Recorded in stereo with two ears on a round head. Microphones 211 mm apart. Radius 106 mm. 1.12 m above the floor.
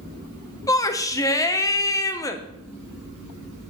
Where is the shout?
15° left (ahead or behind), 0.8 m.